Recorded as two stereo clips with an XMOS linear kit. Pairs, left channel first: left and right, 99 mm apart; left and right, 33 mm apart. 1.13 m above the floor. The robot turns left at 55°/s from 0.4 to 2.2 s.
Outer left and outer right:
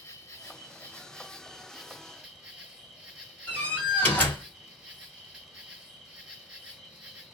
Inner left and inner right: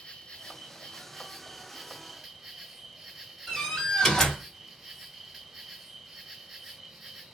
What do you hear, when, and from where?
0.0 s an insect: 25° left (ahead or behind), 1.1 m; by 7.4 s 10° right (ahead or behind), 1.1 m
3.5 s a door slam: 15° left (ahead or behind), 1.6 m